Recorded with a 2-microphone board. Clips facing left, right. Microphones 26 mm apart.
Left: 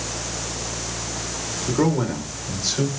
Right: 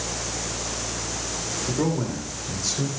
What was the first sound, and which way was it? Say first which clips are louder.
A man speaking: left 5 dB; 30° left (ahead or behind).